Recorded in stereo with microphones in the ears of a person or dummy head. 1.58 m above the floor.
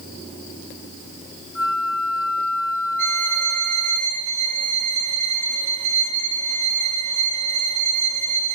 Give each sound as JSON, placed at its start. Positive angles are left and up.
{"t": 1.6, "sound": "a flute", "side_deg": -15, "distance_m": 1.4}
{"t": 3.0, "sound": "a violin", "side_deg": -45, "distance_m": 10.0}